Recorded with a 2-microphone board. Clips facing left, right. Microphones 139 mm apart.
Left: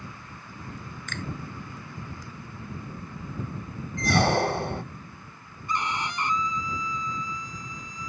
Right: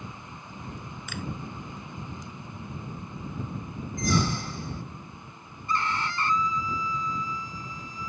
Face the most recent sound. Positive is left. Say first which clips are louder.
# right 1 dB
turn(degrees=20)  # may be behind; listen again after turning